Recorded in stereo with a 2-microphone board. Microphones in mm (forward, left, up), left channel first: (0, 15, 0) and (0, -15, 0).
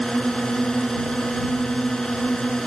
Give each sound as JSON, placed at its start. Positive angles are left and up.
{"t": 0.0, "sound": "a drone", "side_deg": 25}